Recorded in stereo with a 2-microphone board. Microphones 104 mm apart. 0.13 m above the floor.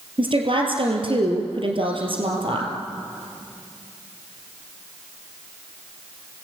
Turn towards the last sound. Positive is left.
turn(degrees=-55)  # may be behind; listen again after turning